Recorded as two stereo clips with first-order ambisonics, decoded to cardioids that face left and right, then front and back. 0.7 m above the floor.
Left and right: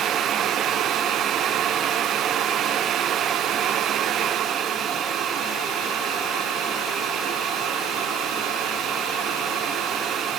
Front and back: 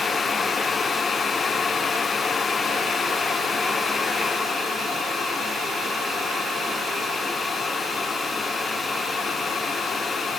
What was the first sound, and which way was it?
Only background noise.